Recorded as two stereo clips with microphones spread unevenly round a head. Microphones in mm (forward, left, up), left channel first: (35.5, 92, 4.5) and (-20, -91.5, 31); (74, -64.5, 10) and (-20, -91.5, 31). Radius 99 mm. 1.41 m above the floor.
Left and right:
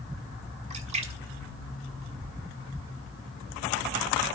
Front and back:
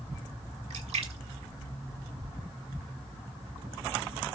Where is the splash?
165° right, 1.1 m.